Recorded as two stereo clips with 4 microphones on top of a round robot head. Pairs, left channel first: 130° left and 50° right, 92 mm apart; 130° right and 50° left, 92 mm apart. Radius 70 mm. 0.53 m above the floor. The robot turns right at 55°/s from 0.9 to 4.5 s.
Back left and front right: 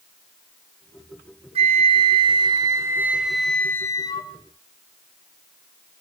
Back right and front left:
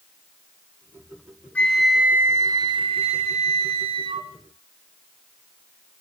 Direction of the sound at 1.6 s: 55° right.